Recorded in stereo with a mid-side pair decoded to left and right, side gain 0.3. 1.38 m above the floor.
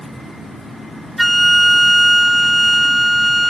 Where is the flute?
5° right, 1.1 m.